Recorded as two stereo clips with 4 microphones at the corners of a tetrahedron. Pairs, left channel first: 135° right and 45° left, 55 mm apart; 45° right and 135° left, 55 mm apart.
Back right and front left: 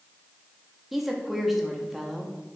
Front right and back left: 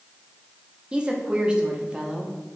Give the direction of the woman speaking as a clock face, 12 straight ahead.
8 o'clock.